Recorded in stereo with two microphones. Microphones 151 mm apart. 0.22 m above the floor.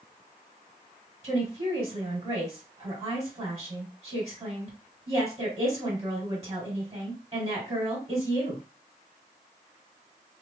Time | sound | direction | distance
1.2 | a woman speaking | 30° right (ahead or behind) | 1.8 m